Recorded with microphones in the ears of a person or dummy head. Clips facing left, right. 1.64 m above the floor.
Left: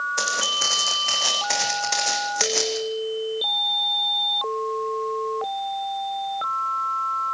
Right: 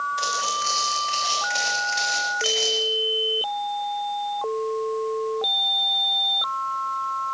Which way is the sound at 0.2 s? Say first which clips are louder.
Even; 60° left (ahead or behind).